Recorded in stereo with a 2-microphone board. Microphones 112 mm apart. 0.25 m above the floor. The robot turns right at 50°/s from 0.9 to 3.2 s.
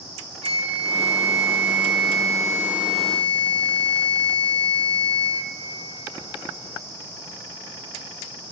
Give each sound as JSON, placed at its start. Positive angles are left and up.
{"t": 0.4, "sound": "a flute", "azimuth_deg": -105, "distance_m": 1.2}